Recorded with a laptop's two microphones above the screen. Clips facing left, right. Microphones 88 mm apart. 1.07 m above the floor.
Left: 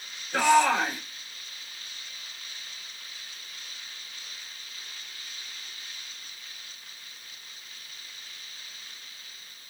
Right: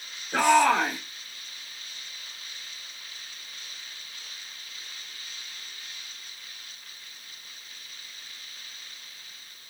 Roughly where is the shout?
Right.